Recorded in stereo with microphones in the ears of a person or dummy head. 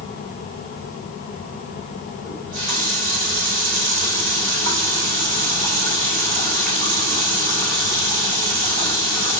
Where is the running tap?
65° right (ahead or behind), 2.0 m.